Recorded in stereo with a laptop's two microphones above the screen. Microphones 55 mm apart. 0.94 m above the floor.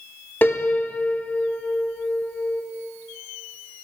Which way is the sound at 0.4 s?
40° left (ahead or behind).